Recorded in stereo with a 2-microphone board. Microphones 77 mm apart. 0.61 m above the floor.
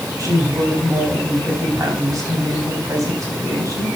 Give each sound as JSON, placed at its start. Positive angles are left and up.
{"t": 0.2, "sound": "a woman speaking", "side_deg": -45, "distance_m": 4.5}